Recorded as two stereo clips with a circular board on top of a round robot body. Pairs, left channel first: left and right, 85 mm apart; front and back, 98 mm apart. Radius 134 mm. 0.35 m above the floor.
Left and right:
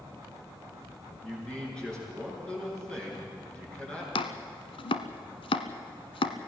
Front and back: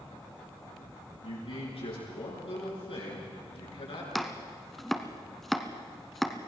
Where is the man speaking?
10° left, 8 m.